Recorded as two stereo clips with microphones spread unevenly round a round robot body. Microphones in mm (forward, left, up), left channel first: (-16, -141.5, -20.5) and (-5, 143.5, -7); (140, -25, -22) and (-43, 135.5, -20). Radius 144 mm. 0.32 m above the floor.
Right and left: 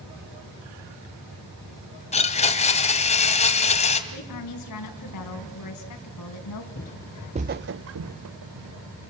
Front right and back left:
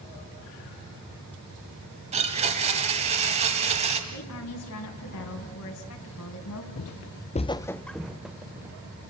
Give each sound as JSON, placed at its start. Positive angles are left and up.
{"t": 2.1, "sound": "a blender", "azimuth_deg": -155, "distance_m": 1.8}
{"t": 4.1, "sound": "a woman speaking", "azimuth_deg": -70, "distance_m": 3.0}
{"t": 6.8, "sound": "footsteps", "azimuth_deg": -45, "distance_m": 0.5}